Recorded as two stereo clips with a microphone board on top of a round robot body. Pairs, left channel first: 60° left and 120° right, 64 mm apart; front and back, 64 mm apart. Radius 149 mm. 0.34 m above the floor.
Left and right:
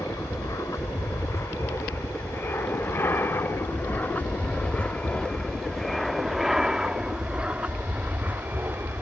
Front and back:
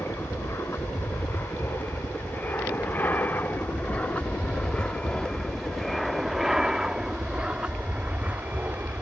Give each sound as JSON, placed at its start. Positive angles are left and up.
{"t": 0.0, "sound": "an aircraft", "azimuth_deg": 40}